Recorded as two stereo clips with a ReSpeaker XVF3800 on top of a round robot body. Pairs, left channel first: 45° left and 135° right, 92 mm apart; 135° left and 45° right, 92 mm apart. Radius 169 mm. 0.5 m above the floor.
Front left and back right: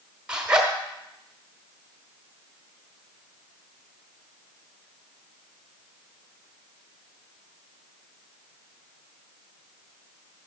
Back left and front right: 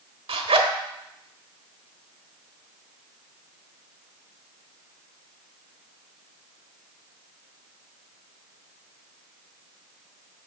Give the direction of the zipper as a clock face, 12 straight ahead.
2 o'clock.